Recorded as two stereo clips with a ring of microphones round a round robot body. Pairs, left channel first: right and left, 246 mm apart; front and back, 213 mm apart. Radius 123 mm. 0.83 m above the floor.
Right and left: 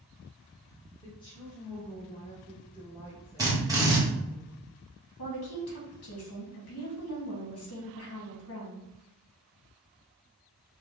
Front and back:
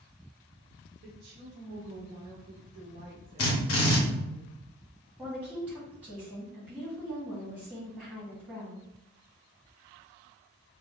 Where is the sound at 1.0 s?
160° right, 1.1 m.